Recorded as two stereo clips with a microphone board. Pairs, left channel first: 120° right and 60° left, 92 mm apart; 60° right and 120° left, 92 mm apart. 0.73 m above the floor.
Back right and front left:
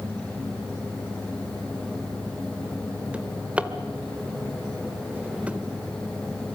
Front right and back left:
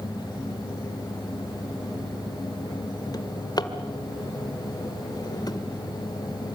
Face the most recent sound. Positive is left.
turn(degrees=-15)